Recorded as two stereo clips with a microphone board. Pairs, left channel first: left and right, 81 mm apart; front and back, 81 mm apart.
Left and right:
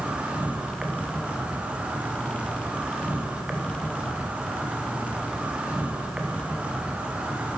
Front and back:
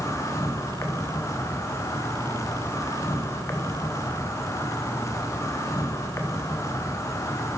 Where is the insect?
20° right, 1.2 m.